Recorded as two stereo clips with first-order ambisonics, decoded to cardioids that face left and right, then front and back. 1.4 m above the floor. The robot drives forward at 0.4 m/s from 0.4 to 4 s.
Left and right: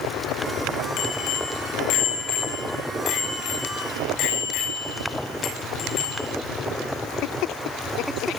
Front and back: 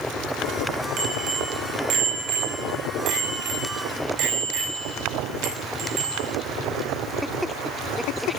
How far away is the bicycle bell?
About 5.5 m.